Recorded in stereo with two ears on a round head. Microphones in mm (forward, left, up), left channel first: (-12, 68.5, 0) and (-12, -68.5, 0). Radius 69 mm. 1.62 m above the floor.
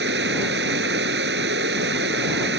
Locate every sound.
0.0 s running water: 90° right